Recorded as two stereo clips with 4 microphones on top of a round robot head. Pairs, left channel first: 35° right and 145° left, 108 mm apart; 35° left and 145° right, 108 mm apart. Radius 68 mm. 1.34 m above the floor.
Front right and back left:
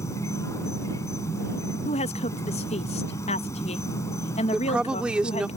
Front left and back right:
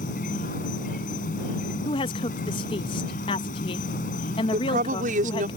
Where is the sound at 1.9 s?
10° right.